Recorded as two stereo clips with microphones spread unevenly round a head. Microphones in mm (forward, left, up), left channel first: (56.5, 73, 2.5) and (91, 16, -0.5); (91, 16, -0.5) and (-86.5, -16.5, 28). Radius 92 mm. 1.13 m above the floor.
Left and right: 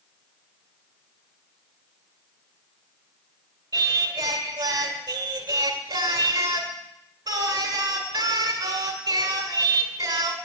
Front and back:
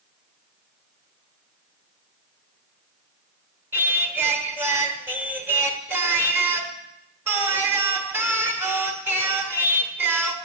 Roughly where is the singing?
Right.